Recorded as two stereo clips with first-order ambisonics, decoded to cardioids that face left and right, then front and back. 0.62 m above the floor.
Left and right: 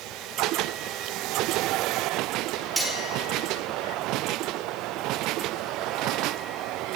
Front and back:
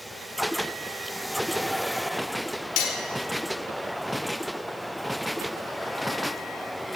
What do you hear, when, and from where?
2.8 s cutlery clinking: 10° right, 1.1 m